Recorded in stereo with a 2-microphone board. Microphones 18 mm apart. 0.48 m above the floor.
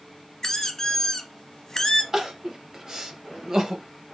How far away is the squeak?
About 0.6 m.